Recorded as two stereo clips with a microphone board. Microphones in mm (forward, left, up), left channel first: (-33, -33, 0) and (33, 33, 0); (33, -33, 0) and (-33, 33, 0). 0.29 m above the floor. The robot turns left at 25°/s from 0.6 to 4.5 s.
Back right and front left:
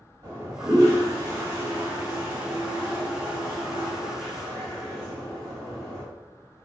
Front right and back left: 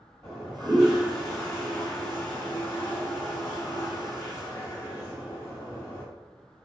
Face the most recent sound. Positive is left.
turn(degrees=-45)